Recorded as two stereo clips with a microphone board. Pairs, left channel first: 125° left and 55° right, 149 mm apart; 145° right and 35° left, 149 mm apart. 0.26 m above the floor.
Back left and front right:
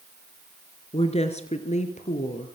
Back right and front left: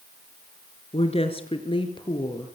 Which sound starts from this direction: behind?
A woman speaking, at 0.9 s.